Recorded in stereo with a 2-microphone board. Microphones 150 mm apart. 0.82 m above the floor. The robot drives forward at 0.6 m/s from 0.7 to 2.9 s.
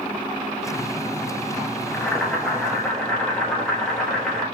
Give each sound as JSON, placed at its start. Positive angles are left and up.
{"t": 1.9, "sound": "boiling", "side_deg": 5, "distance_m": 0.7}